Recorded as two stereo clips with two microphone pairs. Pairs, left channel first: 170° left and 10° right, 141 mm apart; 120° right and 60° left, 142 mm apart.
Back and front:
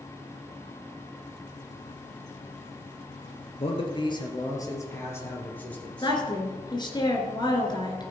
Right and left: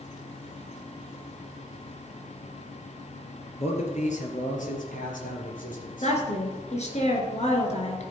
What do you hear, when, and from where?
3.6 s a man speaking: 150° right, 2.5 m; by 6.2 s 105° right, 4 m
6.0 s a woman speaking: 140° right, 2.5 m